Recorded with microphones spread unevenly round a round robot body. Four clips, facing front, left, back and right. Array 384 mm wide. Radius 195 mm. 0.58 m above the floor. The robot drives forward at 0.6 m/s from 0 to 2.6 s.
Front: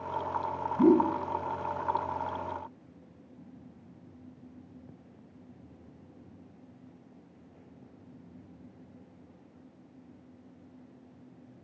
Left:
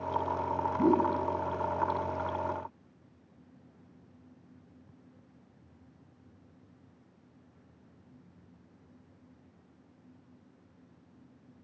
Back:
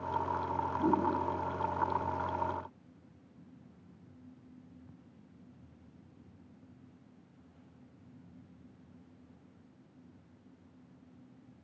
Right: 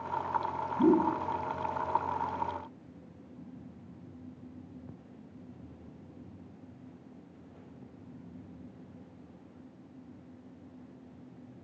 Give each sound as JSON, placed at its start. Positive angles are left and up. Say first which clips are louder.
{"t": 0.8, "sound": "a whoosh", "louder": "right 2 dB, front 9 dB", "azimuth_deg": 5, "distance_m": 4.5}